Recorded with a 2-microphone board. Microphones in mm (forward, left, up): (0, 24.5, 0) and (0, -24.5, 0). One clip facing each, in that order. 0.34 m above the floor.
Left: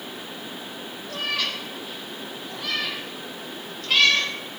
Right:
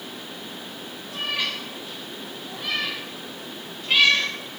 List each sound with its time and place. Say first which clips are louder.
1.1 s a cat meowing: even; 20° right (ahead or behind), 7.5 m; by 4.3 s 10° right (ahead or behind), 3.5 m